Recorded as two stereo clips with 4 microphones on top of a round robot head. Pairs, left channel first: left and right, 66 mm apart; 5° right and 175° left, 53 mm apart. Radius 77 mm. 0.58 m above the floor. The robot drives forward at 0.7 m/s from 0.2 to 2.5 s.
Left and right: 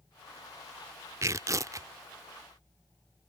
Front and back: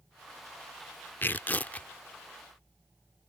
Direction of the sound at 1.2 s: 55° right.